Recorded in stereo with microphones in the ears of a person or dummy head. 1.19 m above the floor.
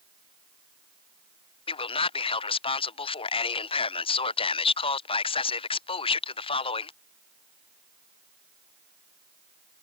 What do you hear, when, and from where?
1.7 s a man speaking: 25° left (ahead or behind)